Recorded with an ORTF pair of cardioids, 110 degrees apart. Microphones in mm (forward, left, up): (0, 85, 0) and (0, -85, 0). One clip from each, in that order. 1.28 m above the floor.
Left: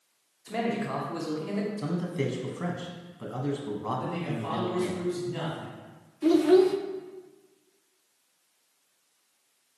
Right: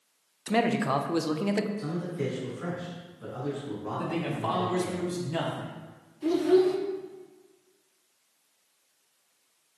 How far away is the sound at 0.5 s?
About 0.5 m.